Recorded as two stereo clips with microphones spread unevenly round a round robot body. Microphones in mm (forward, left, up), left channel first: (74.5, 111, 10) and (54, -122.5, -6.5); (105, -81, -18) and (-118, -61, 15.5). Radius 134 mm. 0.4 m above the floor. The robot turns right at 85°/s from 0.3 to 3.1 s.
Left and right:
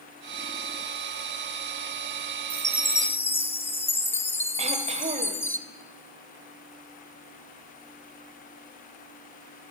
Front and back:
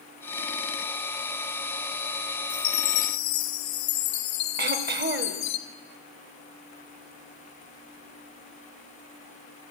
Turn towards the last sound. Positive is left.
turn(degrees=-150)